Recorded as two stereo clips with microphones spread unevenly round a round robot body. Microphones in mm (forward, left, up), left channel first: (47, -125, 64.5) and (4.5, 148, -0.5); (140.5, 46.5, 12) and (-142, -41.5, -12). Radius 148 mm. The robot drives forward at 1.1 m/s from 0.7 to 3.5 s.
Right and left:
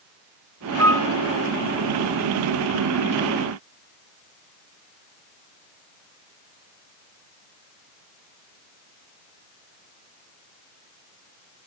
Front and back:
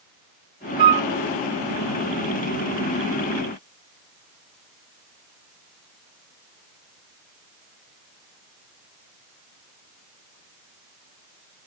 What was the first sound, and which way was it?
A flute, 160° right.